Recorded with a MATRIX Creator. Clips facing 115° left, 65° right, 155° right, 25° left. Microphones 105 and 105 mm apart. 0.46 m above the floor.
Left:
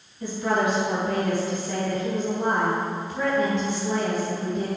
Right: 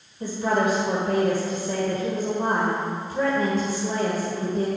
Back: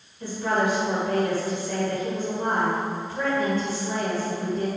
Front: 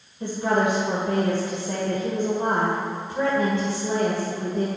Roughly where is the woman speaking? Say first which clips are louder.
Right 1 dB, front 2 dB; ahead right.